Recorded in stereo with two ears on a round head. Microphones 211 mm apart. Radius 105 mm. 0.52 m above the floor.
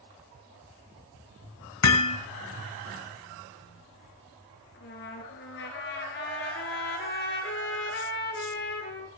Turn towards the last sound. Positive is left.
turn(degrees=50)  # may be behind; listen again after turning